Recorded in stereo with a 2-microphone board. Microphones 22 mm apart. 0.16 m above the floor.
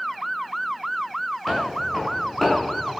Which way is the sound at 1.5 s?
5° left (ahead or behind).